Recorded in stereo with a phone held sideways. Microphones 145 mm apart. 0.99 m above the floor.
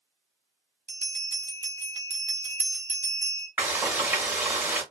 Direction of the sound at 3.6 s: 15° right (ahead or behind).